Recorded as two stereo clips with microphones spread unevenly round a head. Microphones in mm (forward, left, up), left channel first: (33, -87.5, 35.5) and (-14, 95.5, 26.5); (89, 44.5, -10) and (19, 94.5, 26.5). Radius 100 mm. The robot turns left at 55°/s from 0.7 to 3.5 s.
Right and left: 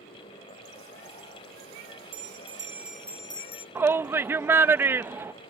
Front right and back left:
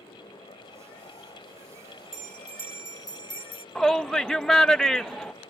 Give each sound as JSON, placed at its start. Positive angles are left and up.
{"t": 2.1, "sound": "a bell", "azimuth_deg": 60}
{"t": 3.8, "sound": "a shout", "azimuth_deg": 30}